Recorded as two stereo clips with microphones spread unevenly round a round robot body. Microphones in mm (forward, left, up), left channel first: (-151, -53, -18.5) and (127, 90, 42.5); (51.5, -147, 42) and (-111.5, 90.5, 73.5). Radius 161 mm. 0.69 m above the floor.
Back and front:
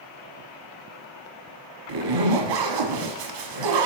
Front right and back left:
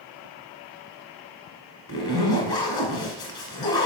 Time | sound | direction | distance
1.9 | a zipper | 25° left | 1.4 m